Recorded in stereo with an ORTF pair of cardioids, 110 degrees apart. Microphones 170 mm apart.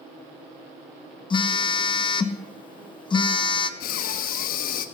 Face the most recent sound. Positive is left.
turn(degrees=60)